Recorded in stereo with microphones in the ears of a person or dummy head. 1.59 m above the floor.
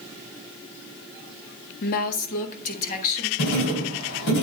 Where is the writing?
65° left (ahead or behind), 3.5 m.